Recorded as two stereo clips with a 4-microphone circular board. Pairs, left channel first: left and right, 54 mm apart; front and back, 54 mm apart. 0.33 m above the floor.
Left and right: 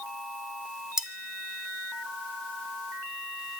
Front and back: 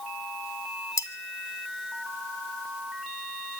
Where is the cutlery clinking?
10° right, 1.8 m.